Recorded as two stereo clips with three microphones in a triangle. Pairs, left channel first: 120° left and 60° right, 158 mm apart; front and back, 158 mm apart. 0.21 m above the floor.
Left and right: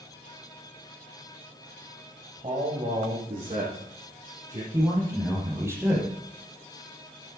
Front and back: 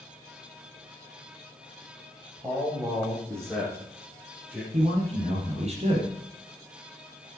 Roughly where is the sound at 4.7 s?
Behind right.